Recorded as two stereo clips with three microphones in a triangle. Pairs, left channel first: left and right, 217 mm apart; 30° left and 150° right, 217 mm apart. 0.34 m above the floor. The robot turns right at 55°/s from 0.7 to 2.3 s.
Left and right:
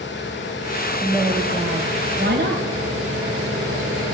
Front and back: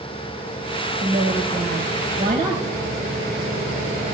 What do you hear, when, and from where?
1.0 s a woman speaking: 175° right, 2 m; by 2.6 s 105° right, 2 m